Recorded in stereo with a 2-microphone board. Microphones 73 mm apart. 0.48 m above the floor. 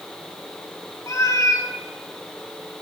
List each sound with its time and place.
1.1 s a cat meowing: 50° left (ahead or behind), 1.5 m